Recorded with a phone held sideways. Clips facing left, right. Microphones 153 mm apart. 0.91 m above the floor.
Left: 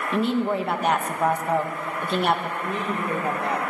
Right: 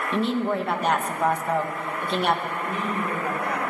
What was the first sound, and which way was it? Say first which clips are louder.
A woman speaking: left 1 dB; 5° left (ahead or behind).